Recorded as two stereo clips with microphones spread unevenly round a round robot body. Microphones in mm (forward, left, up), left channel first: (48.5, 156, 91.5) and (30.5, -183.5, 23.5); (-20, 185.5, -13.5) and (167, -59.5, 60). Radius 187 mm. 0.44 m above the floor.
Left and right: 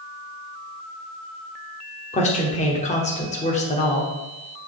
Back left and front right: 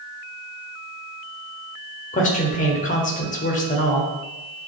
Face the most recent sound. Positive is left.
turn(degrees=160)